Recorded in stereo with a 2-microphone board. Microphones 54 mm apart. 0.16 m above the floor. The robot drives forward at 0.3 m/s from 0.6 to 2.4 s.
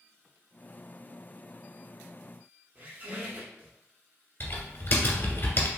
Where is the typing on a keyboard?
45° left (ahead or behind), 1.2 m.